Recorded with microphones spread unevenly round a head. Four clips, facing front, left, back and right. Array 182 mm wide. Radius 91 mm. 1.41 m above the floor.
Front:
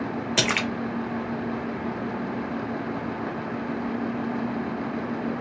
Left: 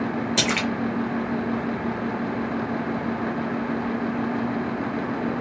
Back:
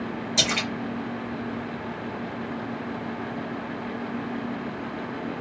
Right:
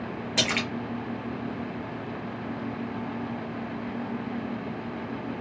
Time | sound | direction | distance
0.4 | a splash | 25° left | 0.7 m